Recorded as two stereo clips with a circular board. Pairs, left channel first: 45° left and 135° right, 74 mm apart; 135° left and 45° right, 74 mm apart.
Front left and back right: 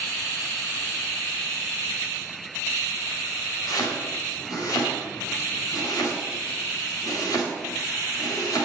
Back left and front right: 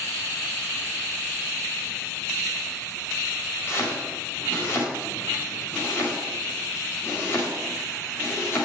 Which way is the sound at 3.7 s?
80° left.